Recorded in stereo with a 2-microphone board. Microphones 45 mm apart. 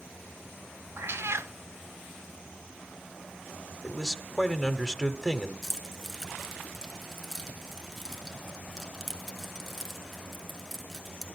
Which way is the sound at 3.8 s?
5° left (ahead or behind).